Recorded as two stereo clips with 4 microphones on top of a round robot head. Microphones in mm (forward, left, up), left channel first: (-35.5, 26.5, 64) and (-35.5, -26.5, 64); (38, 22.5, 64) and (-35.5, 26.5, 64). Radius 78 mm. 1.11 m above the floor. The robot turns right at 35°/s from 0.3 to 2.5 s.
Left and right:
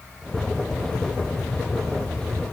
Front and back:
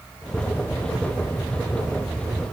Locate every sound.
Only background noise.